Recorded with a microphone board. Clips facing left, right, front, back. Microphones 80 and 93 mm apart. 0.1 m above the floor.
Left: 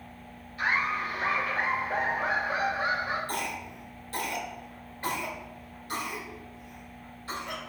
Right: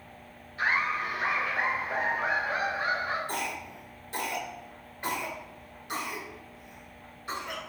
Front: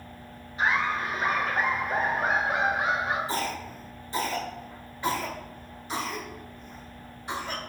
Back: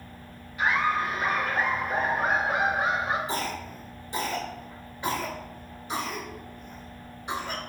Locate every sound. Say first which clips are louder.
0.6 s laughter: even, back 1 dB; 45° right, 1.6 m; by 3.2 s 150° left, 1.4 m
3.3 s a cough: even, front 1 dB; 130° right, 1.4 m